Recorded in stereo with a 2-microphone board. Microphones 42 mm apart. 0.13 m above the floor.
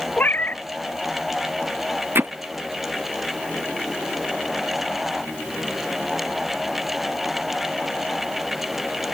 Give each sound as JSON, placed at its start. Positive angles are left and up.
{"t": 0.2, "sound": "a cat meowing", "side_deg": 40}
{"t": 2.1, "sound": "hammering", "side_deg": -60}